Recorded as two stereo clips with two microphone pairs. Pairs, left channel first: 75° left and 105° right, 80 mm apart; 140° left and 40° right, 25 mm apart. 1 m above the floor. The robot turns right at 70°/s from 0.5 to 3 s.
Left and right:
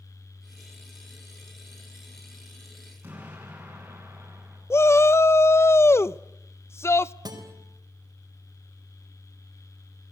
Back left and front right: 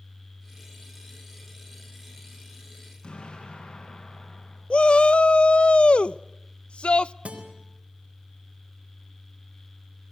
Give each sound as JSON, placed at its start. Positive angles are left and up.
{"t": 3.0, "sound": "an explosion", "azimuth_deg": -175, "distance_m": 9.0}
{"t": 4.7, "sound": "a shout", "azimuth_deg": 115, "distance_m": 0.6}
{"t": 7.2, "sound": "a guitar", "azimuth_deg": -70, "distance_m": 4.0}